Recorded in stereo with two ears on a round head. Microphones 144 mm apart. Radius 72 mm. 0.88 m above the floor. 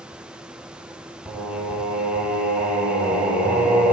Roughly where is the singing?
Centre.